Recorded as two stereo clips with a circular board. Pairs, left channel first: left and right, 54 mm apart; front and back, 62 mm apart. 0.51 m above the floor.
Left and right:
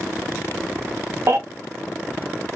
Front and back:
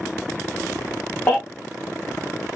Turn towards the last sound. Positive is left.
turn(degrees=-65)